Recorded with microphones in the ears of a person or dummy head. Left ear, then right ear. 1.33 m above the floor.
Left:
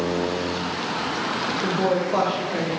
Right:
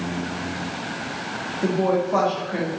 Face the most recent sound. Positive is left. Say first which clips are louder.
# right 3 dB
turn(degrees=-20)  # may be behind; listen again after turning